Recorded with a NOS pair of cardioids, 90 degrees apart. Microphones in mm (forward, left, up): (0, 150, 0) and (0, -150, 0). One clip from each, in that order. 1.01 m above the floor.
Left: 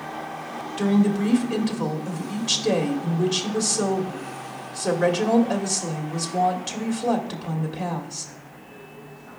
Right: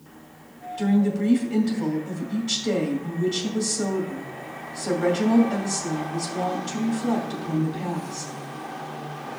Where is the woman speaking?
70° left, 2.5 m.